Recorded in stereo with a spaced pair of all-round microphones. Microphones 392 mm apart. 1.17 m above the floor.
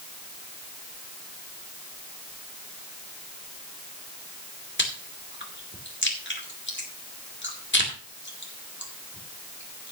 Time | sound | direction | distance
4.8 | chewing | 30° left (ahead or behind) | 2.5 m